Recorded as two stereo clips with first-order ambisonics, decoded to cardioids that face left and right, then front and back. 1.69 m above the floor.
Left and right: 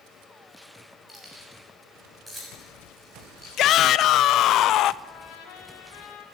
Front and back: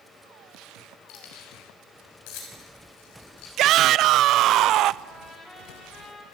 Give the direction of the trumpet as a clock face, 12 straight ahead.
10 o'clock.